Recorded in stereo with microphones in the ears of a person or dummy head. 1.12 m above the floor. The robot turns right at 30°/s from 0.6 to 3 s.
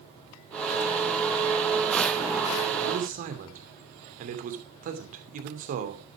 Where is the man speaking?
55° right (ahead or behind), 2.5 m.